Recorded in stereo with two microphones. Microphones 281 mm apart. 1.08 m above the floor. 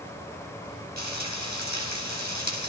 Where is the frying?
80° left, 8 m.